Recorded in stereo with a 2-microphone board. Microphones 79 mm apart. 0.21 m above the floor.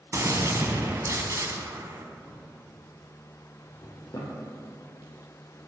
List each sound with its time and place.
0.1 s a gunshot: 45° right (ahead or behind), 1.0 m
2.3 s a drawer: 50° left (ahead or behind), 2.5 m